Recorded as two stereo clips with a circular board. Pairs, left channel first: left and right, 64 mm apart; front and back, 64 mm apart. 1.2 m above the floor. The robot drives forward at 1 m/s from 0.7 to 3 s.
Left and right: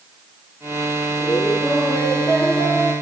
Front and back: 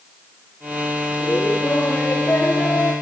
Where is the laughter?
50° left, 4.5 m; by 2.9 s 70° left, 4 m.